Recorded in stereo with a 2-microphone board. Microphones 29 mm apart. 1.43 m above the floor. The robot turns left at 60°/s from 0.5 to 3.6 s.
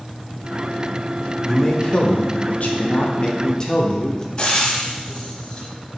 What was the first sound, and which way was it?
A man speaking, 160° left.